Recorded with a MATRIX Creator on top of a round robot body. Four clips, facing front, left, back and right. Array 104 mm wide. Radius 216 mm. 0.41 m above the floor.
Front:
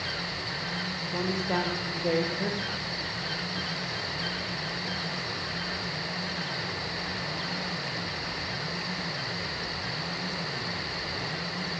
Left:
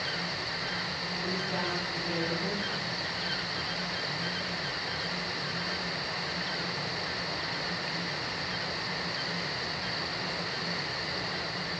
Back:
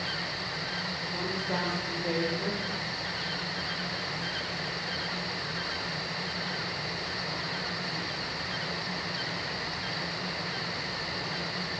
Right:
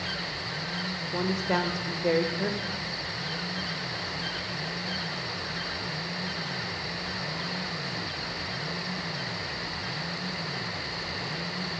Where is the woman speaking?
75° right, 2.0 m.